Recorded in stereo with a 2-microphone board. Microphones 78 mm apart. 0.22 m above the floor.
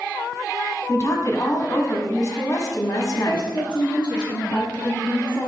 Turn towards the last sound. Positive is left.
turn(degrees=70)  # may be behind; listen again after turning